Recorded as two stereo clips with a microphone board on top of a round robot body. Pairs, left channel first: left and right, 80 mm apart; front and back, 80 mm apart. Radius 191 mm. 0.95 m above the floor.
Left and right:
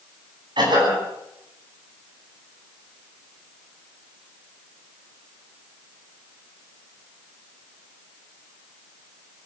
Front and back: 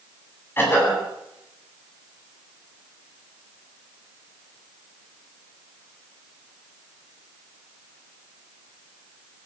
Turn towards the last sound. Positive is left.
turn(degrees=-65)